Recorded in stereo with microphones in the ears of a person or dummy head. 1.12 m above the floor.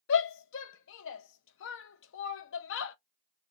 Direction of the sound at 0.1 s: 75° left (ahead or behind).